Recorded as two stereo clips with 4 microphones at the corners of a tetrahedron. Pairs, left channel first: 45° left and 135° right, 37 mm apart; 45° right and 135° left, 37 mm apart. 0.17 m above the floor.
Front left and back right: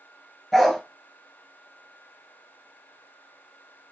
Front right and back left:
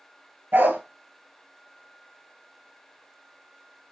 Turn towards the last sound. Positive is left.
turn(degrees=125)